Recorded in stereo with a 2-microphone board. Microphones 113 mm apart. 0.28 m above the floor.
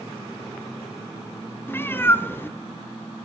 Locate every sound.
1.7 s a cat meowing: 20° left (ahead or behind), 0.6 m